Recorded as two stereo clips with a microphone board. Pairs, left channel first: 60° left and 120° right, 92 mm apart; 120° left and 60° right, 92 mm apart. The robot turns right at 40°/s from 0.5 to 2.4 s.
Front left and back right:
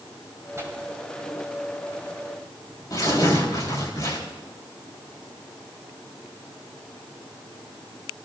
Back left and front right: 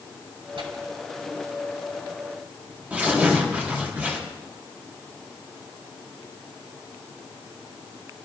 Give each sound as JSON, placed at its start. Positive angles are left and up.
{"t": 0.6, "sound": "tearing paper", "azimuth_deg": -60, "distance_m": 4.0}